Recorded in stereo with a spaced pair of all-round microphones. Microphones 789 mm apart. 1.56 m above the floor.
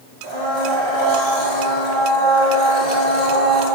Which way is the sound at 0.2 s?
60° left (ahead or behind).